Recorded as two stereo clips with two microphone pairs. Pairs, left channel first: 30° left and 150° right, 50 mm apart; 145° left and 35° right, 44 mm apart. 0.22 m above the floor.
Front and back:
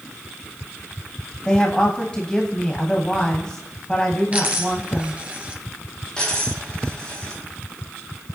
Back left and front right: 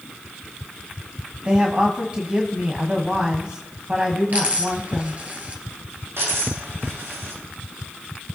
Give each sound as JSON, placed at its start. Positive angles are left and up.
{"t": 1.4, "sound": "a woman speaking", "azimuth_deg": -20, "distance_m": 1.4}
{"t": 4.3, "sound": "a dropped coin", "azimuth_deg": -85, "distance_m": 1.7}
{"t": 6.2, "sound": "a dropped coin", "azimuth_deg": -40, "distance_m": 7.0}